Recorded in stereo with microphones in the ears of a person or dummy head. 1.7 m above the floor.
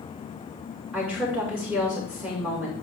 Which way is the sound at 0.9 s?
5° right (ahead or behind).